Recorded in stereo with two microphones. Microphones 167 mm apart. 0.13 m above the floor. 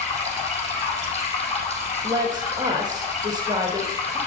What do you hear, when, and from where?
0.0 s running water: 40° left (ahead or behind), 3.5 m
2.0 s a woman speaking: 25° right (ahead or behind), 2.0 m